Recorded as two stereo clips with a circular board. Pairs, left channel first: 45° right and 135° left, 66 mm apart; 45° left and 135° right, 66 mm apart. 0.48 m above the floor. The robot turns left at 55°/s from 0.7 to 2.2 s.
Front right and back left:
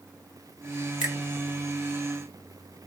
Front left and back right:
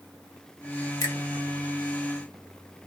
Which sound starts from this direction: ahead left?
A finger snap, at 1.0 s.